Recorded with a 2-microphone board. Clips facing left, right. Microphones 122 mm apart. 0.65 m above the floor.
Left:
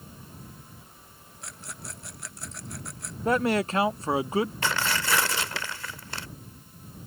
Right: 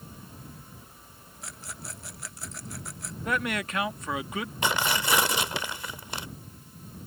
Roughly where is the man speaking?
Left.